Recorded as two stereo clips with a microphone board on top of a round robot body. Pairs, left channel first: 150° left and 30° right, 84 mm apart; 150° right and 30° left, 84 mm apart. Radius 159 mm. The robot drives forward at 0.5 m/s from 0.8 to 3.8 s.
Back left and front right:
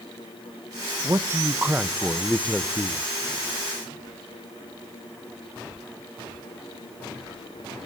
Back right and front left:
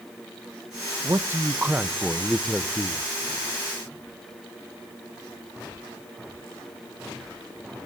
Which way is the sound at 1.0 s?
Straight ahead.